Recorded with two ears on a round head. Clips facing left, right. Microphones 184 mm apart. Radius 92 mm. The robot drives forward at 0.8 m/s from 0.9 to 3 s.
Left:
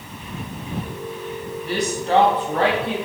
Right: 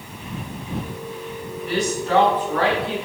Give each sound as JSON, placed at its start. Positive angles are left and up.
{"t": 1.7, "sound": "a woman speaking", "side_deg": 30, "distance_m": 3.0}